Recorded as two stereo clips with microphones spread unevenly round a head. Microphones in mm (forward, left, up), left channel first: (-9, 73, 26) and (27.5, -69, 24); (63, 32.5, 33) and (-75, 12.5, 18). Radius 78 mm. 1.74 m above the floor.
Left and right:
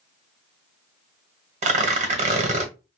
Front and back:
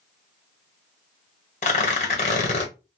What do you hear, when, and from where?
1.6 s tearing paper: 35° right, 1.1 m